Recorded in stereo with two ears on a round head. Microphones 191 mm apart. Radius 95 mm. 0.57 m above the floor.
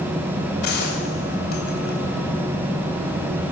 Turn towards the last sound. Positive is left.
turn(degrees=50)  # may be behind; listen again after turning